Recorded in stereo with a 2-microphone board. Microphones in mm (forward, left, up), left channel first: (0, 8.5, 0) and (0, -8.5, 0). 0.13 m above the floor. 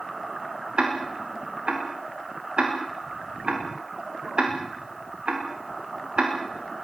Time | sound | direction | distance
0.8 | ticking | 70° right (ahead or behind) | 7.5 m